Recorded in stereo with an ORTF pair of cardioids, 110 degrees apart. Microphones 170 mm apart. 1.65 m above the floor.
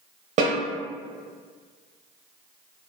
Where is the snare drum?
45° right, 1.2 m.